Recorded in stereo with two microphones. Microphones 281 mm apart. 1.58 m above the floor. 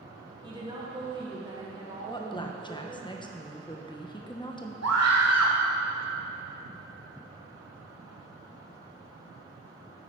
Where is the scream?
65° right (ahead or behind), 1.1 m.